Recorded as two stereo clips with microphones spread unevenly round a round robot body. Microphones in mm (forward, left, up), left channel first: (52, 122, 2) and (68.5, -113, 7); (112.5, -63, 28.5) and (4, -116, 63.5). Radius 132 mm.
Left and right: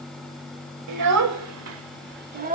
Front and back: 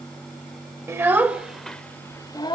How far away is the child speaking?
About 2 m.